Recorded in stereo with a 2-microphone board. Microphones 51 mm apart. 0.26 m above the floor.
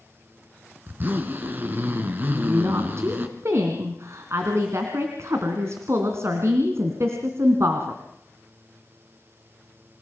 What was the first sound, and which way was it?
A zipper, 40° right (ahead or behind).